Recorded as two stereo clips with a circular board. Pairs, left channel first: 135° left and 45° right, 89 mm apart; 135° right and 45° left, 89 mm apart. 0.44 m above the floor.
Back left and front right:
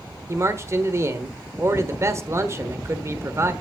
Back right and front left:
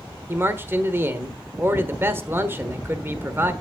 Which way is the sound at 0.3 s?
5° right.